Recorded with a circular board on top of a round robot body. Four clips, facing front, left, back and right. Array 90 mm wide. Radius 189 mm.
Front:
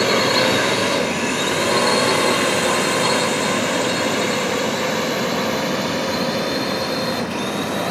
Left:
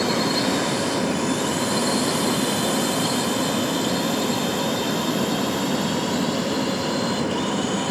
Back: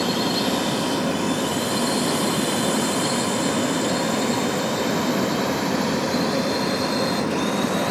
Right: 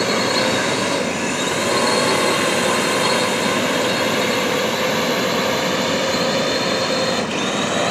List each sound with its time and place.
0.0 s a drone: 30° right; by 7.9 s 80° right